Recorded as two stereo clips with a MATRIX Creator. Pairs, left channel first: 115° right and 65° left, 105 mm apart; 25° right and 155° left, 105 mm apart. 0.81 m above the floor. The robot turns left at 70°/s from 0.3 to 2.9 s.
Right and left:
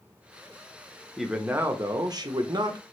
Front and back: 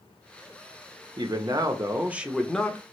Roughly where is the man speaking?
Behind left.